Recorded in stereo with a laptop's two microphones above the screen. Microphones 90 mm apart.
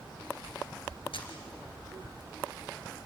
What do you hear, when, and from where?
1.1 s a camera shutter: 75° left (ahead or behind), 3.5 m